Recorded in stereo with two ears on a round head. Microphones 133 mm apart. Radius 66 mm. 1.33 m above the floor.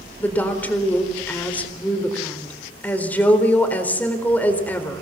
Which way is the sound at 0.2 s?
10° left (ahead or behind).